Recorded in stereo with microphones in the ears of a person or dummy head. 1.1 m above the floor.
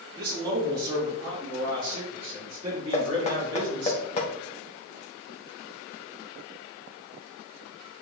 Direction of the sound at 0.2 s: 20° right (ahead or behind).